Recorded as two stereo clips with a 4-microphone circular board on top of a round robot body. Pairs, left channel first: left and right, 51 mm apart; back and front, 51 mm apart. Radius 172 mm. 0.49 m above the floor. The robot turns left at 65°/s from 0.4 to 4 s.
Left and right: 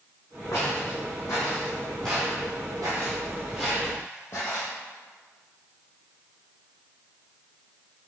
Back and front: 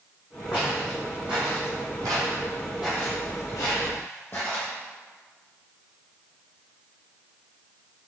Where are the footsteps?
125° left, 1.8 m; by 4.7 s 120° left, 1.1 m.